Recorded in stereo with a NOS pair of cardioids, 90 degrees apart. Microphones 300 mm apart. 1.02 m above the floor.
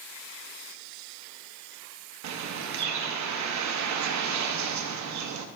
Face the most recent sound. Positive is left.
turn(degrees=-65)